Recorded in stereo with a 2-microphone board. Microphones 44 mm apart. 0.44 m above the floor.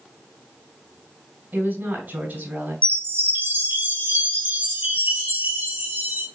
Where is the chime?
50° right (ahead or behind), 4 m.